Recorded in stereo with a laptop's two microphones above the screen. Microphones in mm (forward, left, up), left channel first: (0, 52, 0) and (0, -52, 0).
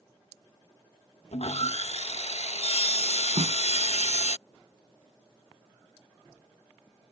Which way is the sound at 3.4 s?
70° right (ahead or behind).